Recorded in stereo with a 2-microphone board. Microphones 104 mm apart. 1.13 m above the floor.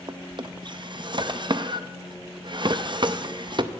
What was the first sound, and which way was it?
A drawer, 50° right (ahead or behind).